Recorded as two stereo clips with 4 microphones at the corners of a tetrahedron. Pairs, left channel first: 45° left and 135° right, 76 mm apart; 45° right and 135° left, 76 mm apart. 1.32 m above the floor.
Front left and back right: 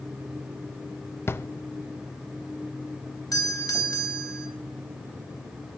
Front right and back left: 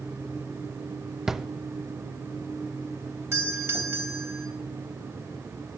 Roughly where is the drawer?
Ahead left.